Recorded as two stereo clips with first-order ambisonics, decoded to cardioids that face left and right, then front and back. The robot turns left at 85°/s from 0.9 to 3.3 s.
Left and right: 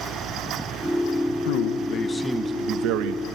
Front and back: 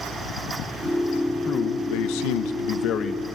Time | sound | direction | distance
1.5 | a man speaking | 70° left | 1.1 m